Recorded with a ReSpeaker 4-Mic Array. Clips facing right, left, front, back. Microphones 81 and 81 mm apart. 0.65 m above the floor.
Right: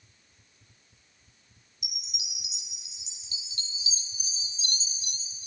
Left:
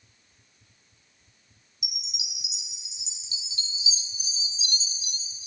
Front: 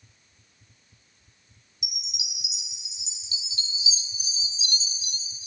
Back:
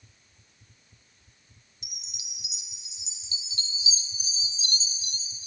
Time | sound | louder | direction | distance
1.8 | a chime | left 3 dB, front 9 dB | 130° right | 0.7 m